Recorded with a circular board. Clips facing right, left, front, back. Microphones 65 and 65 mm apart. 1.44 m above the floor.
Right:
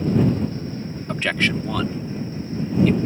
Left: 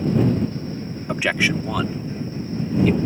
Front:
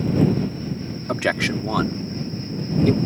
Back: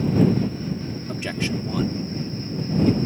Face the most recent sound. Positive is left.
turn(degrees=5)